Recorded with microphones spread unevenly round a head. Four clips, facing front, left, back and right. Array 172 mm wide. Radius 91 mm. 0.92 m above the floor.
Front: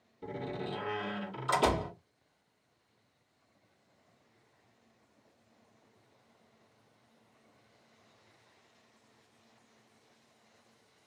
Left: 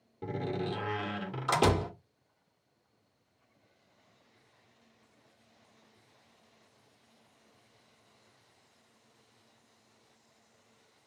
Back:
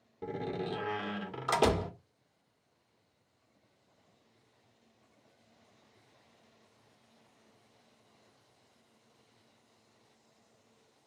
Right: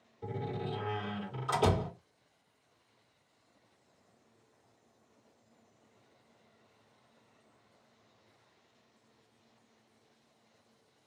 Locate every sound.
0.2 s a door slam: 115° left, 1.9 m